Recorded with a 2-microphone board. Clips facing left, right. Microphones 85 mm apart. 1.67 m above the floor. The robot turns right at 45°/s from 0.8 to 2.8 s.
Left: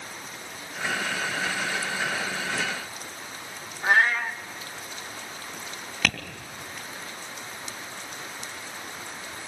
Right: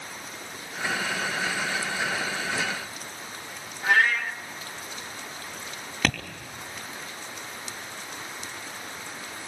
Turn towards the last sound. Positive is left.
turn(degrees=-35)  # may be behind; listen again after turning